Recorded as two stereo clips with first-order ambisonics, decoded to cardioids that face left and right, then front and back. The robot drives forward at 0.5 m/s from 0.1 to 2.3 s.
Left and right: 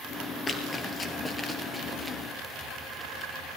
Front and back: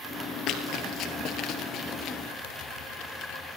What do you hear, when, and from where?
0.5 s running footsteps: 25° left, 2.5 m; by 2.2 s 15° right, 2 m